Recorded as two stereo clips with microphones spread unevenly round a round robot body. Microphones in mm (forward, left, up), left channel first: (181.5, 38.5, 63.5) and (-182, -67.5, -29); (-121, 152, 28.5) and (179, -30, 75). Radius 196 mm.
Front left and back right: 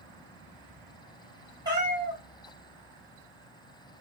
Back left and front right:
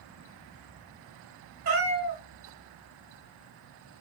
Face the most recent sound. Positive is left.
turn(degrees=-85)